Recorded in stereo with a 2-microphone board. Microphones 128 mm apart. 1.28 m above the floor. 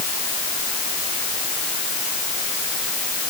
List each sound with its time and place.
Only background noise.